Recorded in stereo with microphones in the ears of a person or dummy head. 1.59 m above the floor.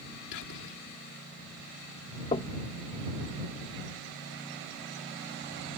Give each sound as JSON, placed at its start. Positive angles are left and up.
{"t": 0.3, "sound": "whispering", "side_deg": 65}
{"t": 2.3, "sound": "knocking", "side_deg": 30}